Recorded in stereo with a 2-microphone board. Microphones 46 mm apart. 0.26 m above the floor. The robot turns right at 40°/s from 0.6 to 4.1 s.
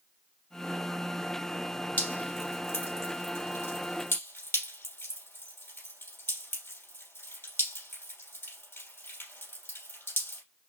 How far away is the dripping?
About 3 m.